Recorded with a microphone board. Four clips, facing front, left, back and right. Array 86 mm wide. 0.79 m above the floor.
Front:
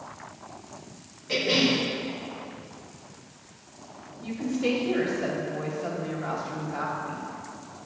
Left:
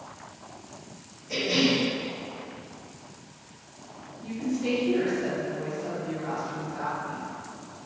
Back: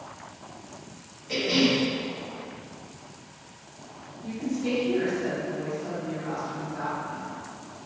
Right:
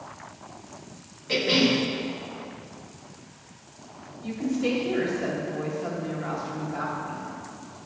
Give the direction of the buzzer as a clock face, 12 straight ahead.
I don't hear a buzzer.